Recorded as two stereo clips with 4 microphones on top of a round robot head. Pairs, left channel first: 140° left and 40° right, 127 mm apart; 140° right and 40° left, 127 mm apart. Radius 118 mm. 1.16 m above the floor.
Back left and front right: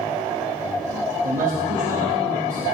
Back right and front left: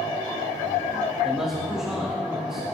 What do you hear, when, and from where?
1.2 s a man speaking: 45° right, 2 m